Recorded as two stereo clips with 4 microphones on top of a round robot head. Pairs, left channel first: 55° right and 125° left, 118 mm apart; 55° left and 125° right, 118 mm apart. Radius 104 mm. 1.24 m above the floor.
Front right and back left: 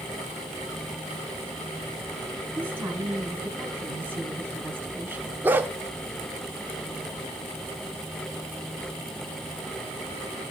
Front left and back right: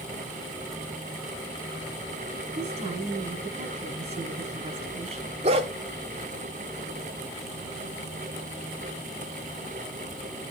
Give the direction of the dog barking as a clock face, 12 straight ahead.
5 o'clock.